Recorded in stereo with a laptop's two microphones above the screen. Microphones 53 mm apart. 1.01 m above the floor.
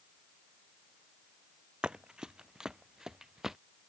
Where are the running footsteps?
15° right (ahead or behind); by 3.6 s 10° right (ahead or behind).